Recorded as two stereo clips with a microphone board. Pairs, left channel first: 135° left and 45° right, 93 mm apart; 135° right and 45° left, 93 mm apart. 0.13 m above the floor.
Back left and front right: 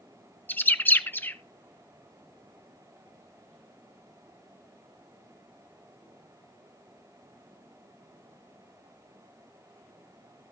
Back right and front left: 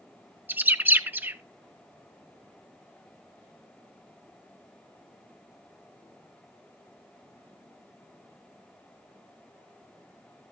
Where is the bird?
90° left, 0.7 m.